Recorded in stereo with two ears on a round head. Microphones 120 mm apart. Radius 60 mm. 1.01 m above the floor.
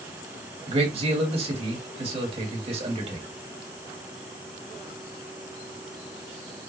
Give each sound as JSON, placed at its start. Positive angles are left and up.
{"t": 0.7, "sound": "a man speaking", "side_deg": -45, "distance_m": 1.8}